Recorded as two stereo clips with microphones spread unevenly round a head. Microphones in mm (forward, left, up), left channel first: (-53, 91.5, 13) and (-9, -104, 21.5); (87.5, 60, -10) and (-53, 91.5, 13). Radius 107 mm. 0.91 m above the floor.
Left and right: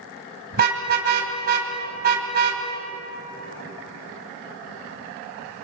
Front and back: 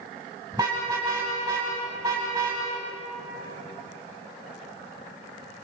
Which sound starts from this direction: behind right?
A car horn, at 0.5 s.